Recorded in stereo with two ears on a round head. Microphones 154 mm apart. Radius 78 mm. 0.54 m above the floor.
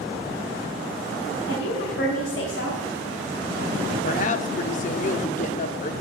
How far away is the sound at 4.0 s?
About 1.0 m.